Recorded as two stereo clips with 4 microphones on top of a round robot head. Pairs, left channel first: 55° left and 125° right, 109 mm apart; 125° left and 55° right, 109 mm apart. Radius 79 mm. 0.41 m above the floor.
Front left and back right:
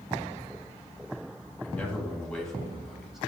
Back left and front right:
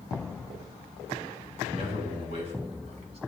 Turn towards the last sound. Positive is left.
turn(degrees=-40)